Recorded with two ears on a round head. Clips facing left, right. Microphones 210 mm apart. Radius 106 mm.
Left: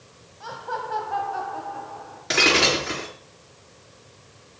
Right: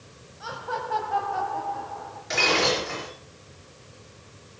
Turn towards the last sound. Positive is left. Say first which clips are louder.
# left 2 dB
turn(degrees=65)  # may be behind; listen again after turning